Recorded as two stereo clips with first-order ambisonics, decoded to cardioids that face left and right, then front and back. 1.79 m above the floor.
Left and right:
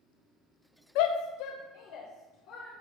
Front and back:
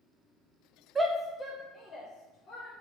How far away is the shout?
About 0.5 m.